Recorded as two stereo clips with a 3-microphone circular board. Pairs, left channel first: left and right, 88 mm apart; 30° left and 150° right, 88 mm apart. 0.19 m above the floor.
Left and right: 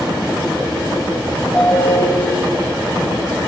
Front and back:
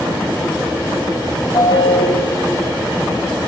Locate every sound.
1.5 s a ringtone: 25° left, 6.5 m